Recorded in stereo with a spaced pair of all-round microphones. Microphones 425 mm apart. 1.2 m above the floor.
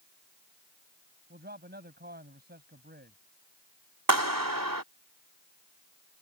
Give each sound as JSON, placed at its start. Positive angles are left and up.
{"t": 1.3, "sound": "a man speaking", "side_deg": -20}
{"t": 4.1, "sound": "a clap", "side_deg": -50}